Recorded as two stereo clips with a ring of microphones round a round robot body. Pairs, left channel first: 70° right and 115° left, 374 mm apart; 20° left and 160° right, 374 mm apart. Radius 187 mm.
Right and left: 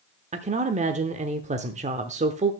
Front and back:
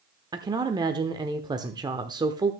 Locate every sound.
0.3 s a woman speaking: 145° left, 0.7 m